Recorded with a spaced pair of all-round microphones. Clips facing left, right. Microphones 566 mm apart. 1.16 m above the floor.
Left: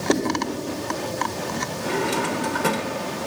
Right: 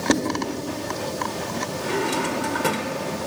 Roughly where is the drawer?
Centre.